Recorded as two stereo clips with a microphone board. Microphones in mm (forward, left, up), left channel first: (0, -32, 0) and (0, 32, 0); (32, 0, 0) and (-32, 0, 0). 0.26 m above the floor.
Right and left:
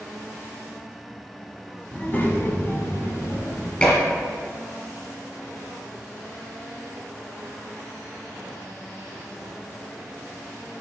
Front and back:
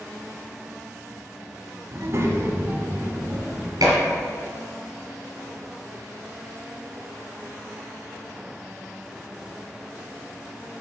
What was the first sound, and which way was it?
A child speaking, 155° right.